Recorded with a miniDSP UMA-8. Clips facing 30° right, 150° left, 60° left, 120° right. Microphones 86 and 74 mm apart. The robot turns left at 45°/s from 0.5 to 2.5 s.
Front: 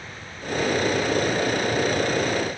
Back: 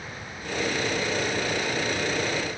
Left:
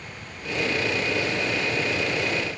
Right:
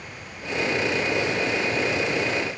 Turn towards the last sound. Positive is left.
No sound to turn to.